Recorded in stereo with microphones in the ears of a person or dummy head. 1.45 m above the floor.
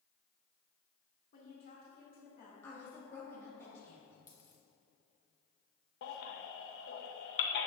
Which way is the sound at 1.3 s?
55° left (ahead or behind).